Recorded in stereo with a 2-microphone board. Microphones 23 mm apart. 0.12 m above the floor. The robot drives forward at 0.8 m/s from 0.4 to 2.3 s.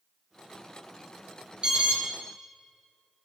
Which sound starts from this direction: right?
An alarm, at 1.6 s.